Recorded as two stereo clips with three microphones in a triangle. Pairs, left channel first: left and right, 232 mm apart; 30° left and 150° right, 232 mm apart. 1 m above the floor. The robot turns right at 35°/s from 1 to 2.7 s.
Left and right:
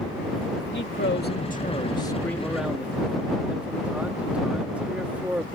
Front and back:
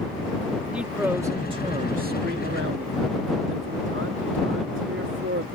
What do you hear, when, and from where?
0.7 s a man speaking: 125° left; by 5.5 s 175° right